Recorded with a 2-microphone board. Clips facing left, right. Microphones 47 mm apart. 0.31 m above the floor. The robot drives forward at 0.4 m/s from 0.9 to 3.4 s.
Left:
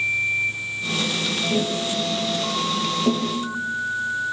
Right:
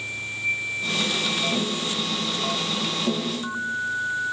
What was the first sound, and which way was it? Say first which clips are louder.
Tapping: left 3 dB; 40° left (ahead or behind).